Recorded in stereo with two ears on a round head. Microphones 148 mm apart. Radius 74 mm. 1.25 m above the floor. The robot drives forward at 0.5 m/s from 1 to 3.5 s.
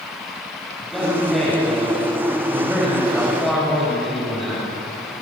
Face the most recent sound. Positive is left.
turn(degrees=0)  # may be behind; listen again after turning